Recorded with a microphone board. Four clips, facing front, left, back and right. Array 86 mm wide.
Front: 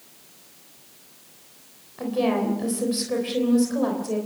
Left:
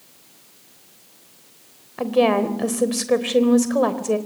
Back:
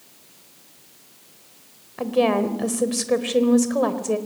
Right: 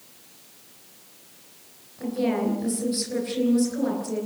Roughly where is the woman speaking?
Behind left.